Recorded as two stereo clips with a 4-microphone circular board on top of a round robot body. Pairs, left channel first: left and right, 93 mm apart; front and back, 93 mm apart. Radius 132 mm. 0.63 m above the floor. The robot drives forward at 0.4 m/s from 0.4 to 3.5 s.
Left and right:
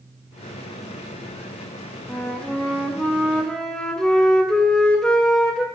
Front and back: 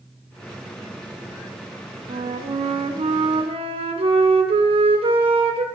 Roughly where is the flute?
Behind.